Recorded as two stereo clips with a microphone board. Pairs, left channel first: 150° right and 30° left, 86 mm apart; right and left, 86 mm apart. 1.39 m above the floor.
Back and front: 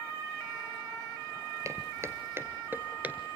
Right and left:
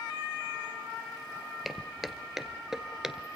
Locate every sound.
1.6 s footsteps: straight ahead, 1.7 m; by 3.4 s 25° left, 1.3 m